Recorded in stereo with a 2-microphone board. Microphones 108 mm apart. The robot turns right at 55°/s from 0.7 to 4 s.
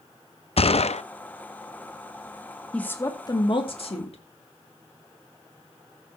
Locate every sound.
0.6 s a gunshot: 65° left (ahead or behind), 0.5 m; by 1.0 s 80° left, 0.5 m
2.7 s a woman speaking: 10° left, 2 m; by 4.2 s 80° left, 2 m